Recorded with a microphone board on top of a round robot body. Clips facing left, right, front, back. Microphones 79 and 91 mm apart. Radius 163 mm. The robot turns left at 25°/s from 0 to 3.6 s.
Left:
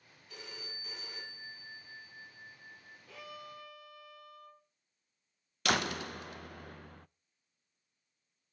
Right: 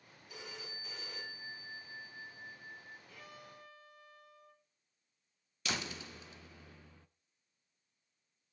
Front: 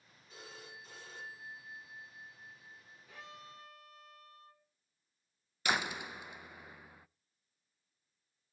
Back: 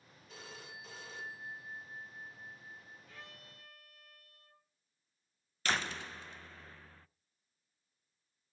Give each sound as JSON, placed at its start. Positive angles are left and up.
{"t": 0.3, "sound": "a phone ringing", "azimuth_deg": -165, "distance_m": 5.5}
{"t": 3.1, "sound": "a violin", "azimuth_deg": 75, "distance_m": 2.5}
{"t": 5.7, "sound": "a door slam", "azimuth_deg": 75, "distance_m": 0.6}